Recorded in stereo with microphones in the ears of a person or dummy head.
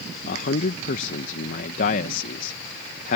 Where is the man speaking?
45° left (ahead or behind).